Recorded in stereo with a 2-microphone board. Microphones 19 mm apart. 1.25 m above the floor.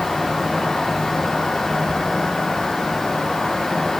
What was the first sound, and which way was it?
Only background noise.